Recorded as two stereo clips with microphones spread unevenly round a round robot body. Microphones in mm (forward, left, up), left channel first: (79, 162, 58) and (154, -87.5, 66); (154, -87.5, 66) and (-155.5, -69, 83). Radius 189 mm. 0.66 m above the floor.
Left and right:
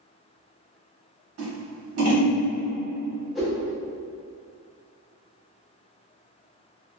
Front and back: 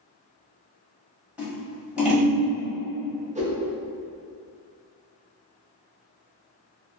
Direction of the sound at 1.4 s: 95° right.